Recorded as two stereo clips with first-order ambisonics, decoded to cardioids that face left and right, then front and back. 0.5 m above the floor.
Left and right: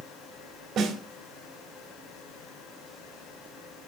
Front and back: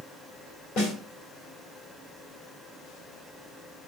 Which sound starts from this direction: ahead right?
A snare drum, at 0.8 s.